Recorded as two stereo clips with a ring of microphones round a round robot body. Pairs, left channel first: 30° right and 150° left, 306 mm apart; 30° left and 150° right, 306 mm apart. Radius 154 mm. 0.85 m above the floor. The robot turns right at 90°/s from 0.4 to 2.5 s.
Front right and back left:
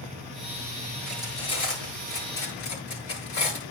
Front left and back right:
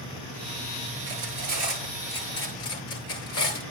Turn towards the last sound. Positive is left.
turn(degrees=-15)